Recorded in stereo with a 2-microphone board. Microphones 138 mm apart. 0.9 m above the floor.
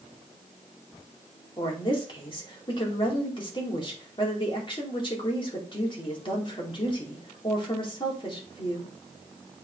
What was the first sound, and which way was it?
A woman speaking, 35° left (ahead or behind).